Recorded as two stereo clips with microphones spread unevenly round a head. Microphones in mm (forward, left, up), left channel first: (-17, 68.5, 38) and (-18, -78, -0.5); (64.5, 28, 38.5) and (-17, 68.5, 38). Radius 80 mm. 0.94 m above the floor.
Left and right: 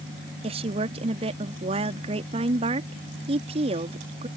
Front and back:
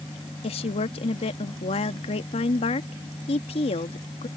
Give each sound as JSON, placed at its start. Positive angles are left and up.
{"t": 0.4, "sound": "a woman speaking", "azimuth_deg": -40}